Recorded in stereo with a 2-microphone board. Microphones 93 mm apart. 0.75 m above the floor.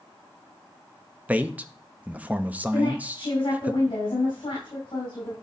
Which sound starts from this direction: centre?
A man speaking, at 1.3 s.